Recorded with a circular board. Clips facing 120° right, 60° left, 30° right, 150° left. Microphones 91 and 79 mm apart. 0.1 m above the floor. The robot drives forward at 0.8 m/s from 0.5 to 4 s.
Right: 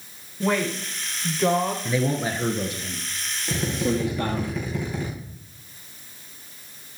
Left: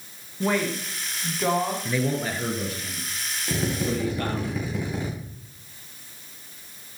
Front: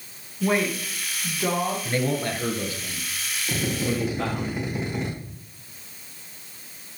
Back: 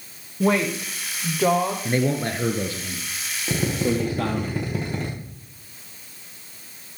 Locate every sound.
0.4 s a woman speaking: 150° left, 6 m
1.9 s a man speaking: 170° left, 1.4 m; by 4.5 s straight behind, 2.5 m
3.5 s a drill: 140° left, 7 m; by 5.1 s 145° left, 7 m